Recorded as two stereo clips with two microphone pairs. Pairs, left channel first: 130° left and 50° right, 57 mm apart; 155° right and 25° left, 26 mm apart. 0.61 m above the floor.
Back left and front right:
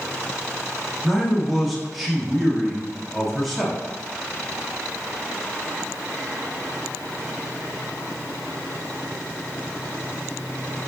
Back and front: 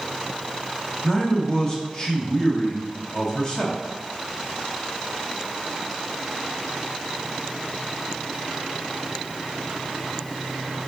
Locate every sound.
1.0 s a man speaking: 135° right, 1.0 m